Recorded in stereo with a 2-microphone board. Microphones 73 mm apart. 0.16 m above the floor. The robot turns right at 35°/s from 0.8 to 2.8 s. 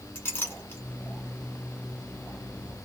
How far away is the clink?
About 1.3 m.